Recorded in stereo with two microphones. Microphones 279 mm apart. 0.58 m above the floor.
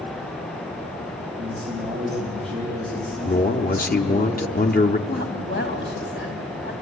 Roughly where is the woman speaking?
Left.